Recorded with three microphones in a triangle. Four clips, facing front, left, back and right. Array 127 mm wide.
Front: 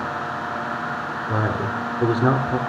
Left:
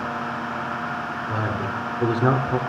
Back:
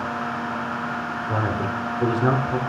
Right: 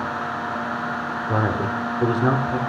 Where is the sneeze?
I don't hear a sneeze.